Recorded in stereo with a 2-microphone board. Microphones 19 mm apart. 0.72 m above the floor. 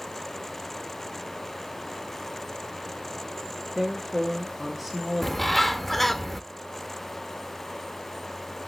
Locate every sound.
3.8 s a woman speaking: 5° right (ahead or behind), 1.6 m
5.2 s a bird: 20° left (ahead or behind), 0.5 m